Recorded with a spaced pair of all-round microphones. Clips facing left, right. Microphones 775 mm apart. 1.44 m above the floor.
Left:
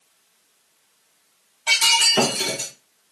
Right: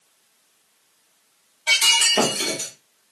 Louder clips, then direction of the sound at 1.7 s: Left 2 dB; 40° left (ahead or behind).